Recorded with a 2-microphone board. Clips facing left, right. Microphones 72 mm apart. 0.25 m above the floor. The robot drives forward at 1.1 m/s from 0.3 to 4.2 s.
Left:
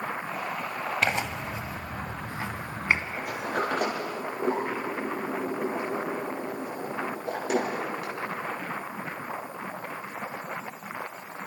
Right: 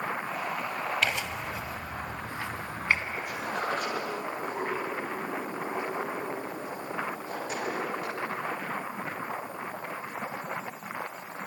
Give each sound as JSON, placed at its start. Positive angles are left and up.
{"t": 1.0, "sound": "tearing paper", "side_deg": 35, "distance_m": 1.7}
{"t": 3.2, "sound": "a sliding door", "side_deg": 60, "distance_m": 6.5}